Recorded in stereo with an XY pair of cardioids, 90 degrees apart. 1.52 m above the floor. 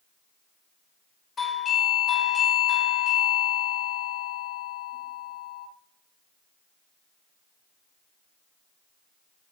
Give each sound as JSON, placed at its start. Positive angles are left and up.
{"t": 1.4, "sound": "a doorbell", "azimuth_deg": 45, "distance_m": 0.7}